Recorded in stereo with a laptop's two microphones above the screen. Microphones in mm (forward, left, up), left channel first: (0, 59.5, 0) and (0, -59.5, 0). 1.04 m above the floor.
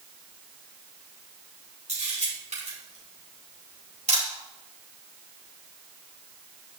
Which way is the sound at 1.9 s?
75° right (ahead or behind).